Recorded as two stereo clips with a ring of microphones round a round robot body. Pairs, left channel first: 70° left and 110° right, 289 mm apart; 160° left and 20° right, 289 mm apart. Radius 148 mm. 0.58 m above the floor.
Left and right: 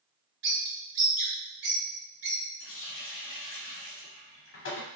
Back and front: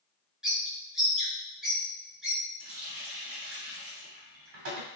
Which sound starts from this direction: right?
A bird, at 0.4 s.